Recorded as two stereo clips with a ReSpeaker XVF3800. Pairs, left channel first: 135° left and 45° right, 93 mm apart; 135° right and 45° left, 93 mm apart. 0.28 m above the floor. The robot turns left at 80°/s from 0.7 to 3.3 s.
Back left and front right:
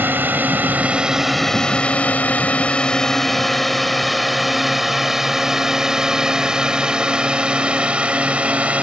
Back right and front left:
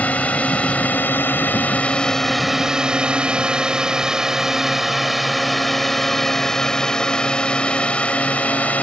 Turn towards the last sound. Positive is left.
turn(degrees=-95)